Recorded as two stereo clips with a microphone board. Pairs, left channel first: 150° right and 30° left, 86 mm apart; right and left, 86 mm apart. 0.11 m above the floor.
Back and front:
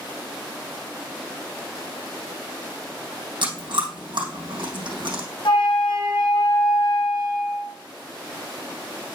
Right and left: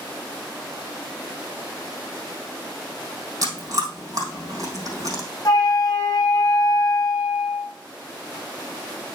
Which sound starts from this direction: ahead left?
Chewing, at 3.4 s.